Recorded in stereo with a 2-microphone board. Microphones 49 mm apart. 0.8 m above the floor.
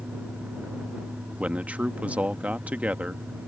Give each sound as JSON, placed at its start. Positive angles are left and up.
{"t": 1.4, "sound": "a man speaking", "side_deg": -25}